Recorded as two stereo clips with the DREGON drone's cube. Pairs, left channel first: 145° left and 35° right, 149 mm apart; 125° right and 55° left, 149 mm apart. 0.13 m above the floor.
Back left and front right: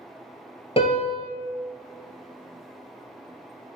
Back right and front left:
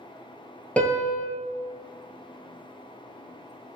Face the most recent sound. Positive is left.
turn(degrees=160)